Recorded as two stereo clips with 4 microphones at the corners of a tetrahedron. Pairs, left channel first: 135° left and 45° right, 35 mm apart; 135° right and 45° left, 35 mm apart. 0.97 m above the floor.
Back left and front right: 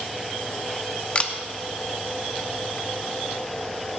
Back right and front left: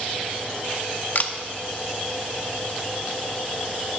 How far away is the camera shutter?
About 0.7 m.